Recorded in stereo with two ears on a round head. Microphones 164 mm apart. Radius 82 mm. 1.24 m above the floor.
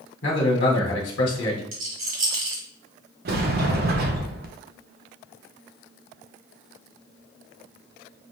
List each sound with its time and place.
0.2 s a man speaking: 70° left (ahead or behind), 1.5 m
1.7 s a rattle: 50° right (ahead or behind), 1.9 m
3.2 s a sliding door: 55° right (ahead or behind), 0.7 m